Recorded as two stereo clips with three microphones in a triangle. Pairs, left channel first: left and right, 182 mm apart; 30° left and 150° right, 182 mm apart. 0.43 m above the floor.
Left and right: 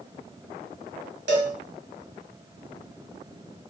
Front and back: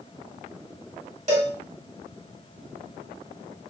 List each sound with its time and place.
1.3 s a cowbell: 100° right, 1.2 m